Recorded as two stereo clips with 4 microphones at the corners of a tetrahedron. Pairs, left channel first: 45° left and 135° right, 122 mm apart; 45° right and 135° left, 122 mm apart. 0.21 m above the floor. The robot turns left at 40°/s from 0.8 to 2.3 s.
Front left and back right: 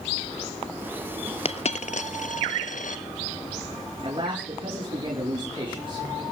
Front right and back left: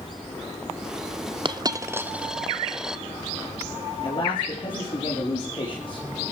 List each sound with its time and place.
1.4 s a dropped coin: 85° left, 0.8 m; by 3.0 s 50° left, 0.8 m
4.0 s a man speaking: 90° right, 5 m